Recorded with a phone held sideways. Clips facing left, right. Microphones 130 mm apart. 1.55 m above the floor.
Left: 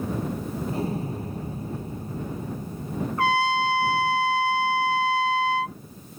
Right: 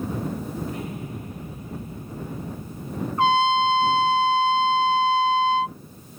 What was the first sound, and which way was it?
An explosion, 35° left (ahead or behind).